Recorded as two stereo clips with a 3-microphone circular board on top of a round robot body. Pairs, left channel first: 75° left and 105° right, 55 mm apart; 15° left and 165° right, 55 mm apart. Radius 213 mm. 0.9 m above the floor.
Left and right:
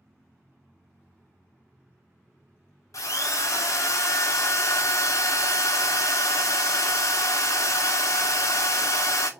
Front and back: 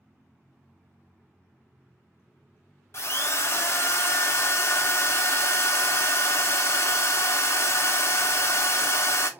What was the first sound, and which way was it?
A drill, 55° left.